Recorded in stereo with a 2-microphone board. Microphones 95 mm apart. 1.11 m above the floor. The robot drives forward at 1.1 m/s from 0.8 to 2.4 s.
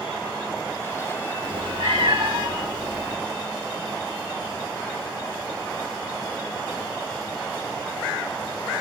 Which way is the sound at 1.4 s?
55° right (ahead or behind).